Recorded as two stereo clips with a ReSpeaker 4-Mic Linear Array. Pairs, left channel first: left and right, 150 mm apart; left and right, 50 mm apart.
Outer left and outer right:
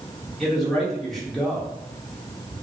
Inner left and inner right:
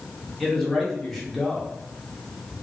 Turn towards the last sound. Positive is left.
turn(degrees=0)  # may be behind; listen again after turning